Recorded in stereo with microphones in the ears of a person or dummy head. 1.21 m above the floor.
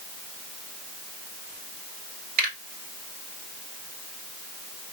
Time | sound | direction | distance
2.4 | a finger snap | 50° right (ahead or behind) | 4 m